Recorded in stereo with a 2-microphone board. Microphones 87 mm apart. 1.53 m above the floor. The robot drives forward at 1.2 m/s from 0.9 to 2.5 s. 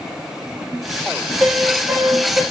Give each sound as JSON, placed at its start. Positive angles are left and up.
{"t": 1.4, "sound": "a piano", "side_deg": -15, "distance_m": 2.5}